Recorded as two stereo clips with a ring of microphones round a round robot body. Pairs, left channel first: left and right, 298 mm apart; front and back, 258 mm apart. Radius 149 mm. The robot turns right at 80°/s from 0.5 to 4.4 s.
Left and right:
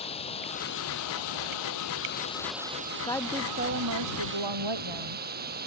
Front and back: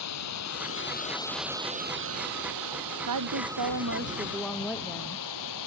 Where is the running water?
20° left; by 5.7 s 30° right.